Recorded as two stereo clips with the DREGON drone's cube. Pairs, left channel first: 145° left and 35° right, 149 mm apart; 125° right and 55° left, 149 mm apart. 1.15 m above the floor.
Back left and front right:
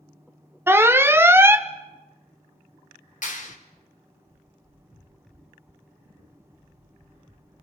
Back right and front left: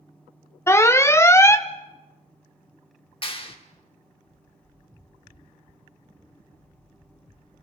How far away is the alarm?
About 0.7 m.